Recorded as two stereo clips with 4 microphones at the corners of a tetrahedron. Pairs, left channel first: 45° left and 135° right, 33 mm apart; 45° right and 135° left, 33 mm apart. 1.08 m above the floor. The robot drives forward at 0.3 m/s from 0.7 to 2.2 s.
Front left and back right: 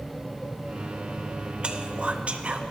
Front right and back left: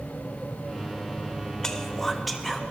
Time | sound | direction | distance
1.6 | whispering | 105° right | 0.5 m